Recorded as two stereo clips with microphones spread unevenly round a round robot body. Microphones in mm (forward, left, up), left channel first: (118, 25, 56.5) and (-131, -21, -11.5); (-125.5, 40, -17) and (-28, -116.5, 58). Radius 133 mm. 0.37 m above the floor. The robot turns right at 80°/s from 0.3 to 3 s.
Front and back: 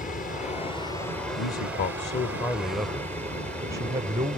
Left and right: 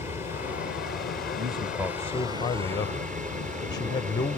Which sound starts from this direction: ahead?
A man speaking, at 1.4 s.